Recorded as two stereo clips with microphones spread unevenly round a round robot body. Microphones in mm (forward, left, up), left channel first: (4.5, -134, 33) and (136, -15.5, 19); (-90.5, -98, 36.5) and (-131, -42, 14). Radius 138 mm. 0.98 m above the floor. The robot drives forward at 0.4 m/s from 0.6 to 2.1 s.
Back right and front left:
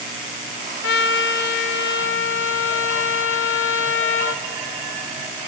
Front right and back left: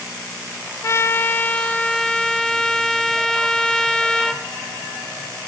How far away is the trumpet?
About 0.7 m.